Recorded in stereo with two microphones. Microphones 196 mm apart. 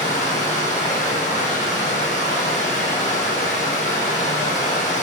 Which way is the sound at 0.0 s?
35° left (ahead or behind).